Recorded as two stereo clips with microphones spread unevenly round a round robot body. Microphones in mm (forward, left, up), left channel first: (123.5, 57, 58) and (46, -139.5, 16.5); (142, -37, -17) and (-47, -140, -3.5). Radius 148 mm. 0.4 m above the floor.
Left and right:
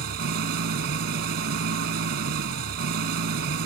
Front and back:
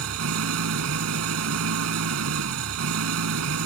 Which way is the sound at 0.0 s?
160° right.